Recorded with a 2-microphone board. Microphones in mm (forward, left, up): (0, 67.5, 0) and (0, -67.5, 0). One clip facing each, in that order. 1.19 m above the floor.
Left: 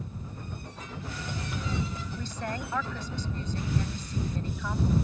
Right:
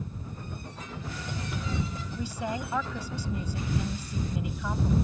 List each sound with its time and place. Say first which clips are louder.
2.2 s a woman speaking: right 3 dB; 10° right (ahead or behind)